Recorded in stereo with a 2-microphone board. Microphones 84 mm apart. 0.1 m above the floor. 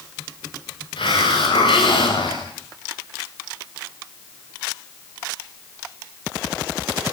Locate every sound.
1.0 s a hiss: 85° left, 6.5 m